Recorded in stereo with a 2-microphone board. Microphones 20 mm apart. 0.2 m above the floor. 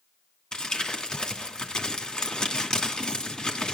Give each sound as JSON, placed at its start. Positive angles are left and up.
{"t": 0.5, "sound": "crumpling", "side_deg": 45, "distance_m": 2.5}